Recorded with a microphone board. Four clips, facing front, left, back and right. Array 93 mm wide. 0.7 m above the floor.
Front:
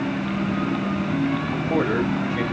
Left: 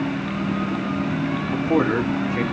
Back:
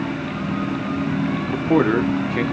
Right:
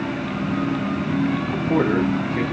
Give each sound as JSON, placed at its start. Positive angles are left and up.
{"t": 1.5, "sound": "a man speaking", "azimuth_deg": 165, "distance_m": 1.0}